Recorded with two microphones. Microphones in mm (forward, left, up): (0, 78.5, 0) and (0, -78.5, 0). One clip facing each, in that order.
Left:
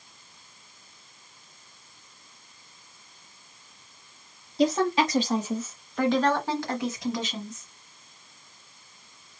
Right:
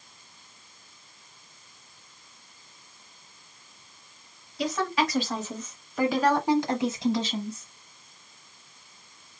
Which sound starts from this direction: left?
A woman speaking, at 4.6 s.